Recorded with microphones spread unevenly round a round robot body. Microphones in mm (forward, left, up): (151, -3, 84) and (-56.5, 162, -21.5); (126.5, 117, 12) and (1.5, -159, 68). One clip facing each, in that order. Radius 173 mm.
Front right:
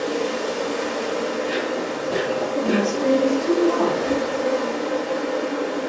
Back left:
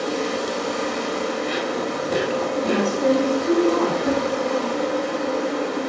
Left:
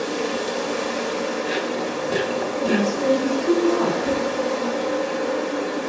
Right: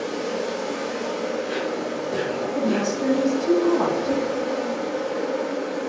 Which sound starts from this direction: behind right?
A woman speaking, at 2.5 s.